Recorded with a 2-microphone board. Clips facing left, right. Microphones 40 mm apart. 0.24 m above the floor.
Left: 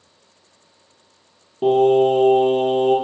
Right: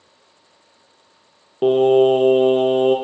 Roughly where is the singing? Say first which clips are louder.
Right 1 dB; right.